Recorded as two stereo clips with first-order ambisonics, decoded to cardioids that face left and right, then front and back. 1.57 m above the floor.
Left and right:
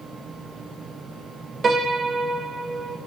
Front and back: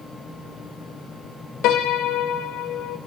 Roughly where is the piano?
Ahead.